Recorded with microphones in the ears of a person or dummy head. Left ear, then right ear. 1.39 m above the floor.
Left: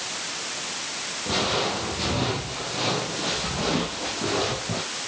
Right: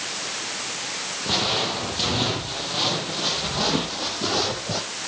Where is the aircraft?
No aircraft in this recording.